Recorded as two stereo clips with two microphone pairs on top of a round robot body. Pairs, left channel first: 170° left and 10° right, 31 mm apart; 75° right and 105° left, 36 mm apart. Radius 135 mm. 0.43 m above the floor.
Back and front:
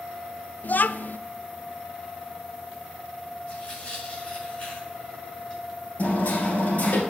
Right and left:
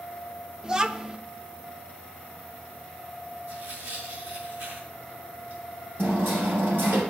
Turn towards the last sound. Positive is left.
turn(degrees=125)